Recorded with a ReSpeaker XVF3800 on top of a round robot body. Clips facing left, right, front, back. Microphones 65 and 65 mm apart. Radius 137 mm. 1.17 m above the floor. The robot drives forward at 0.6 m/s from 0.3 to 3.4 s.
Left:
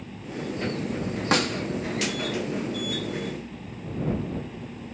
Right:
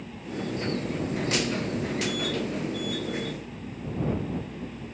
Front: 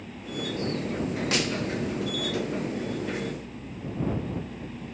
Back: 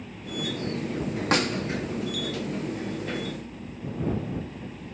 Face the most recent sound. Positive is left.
turn(degrees=150)